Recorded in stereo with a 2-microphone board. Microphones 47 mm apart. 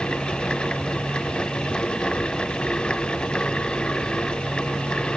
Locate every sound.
Only background noise.